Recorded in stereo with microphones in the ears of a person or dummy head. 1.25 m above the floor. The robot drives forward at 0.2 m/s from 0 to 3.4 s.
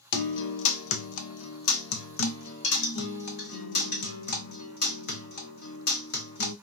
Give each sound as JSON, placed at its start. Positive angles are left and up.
{"t": 0.1, "sound": "a guitar", "side_deg": 65, "distance_m": 0.6}